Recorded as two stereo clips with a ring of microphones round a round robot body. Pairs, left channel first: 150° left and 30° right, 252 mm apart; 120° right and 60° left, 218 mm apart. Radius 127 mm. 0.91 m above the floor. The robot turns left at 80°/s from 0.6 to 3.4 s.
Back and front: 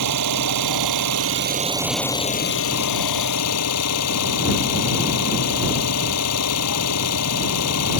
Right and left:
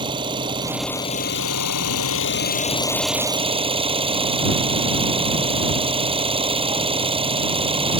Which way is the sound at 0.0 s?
10° right.